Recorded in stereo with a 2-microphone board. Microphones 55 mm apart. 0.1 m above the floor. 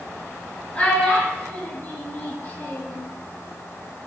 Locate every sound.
0.8 s a child speaking: 25° left (ahead or behind), 1.3 m; by 3.0 s 35° left (ahead or behind), 1.1 m